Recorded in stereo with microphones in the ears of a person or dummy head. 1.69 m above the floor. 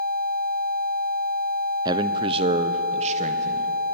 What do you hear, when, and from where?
1.9 s a man speaking: 20° right (ahead or behind), 0.6 m; by 3.7 s 35° right (ahead or behind), 1.5 m